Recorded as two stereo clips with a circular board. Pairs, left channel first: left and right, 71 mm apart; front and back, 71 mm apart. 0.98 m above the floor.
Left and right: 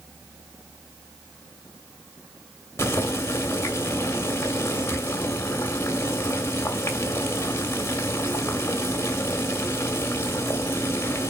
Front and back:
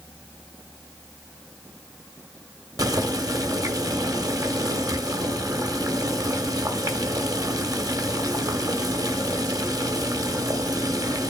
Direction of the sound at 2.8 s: 145° left.